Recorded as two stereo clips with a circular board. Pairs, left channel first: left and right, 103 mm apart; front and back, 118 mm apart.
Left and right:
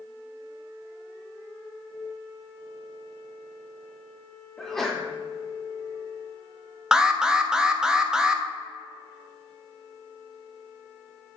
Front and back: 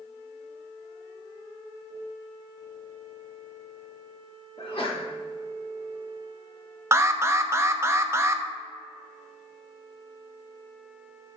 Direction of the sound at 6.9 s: 160° right.